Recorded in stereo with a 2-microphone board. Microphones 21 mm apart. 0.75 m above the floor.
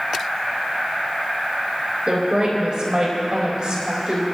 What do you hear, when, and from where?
2.1 s a woman speaking: 50° right (ahead or behind), 4.5 m